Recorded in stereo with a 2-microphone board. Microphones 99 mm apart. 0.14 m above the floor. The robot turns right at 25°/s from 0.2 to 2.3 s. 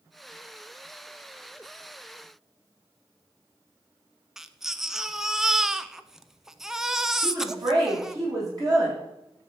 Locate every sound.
4.4 s a baby crying: 5° right (ahead or behind), 0.6 m
7.2 s a woman speaking: 40° right (ahead or behind), 7 m